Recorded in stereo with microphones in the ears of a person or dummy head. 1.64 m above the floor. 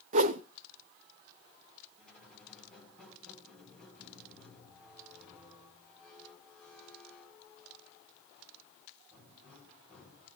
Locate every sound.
0.1 s a whoosh: 35° right (ahead or behind), 0.6 m
2.0 s a squeak: 5° left (ahead or behind), 5 m